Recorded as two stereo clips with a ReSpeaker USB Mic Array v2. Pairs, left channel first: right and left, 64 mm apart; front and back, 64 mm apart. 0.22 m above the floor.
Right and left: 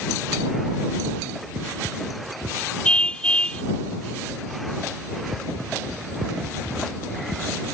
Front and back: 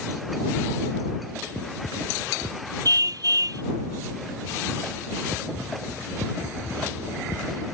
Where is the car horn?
165° right.